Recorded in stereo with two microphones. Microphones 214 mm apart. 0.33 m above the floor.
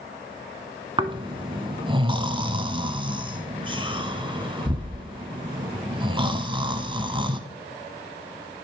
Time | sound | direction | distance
1.0 | snoring | 25° right (ahead or behind) | 0.9 m